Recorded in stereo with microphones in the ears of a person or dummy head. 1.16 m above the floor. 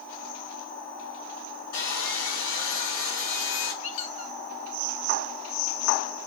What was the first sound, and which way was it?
Sawing, 60° left (ahead or behind).